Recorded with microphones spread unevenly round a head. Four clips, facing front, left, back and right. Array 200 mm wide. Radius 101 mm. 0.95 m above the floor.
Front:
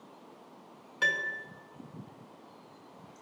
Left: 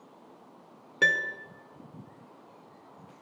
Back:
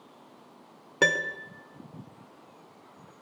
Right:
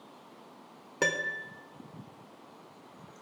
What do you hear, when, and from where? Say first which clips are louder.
1.0 s a piano: left 3 dB, back 6 dB; straight behind, 1.3 m